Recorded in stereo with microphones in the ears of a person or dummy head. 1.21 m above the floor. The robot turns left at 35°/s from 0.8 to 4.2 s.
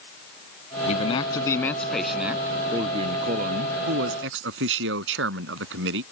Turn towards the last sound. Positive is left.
turn(degrees=-80)